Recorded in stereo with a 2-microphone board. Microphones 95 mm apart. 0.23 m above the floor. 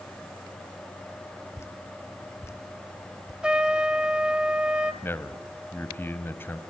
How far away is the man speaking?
About 1.2 m.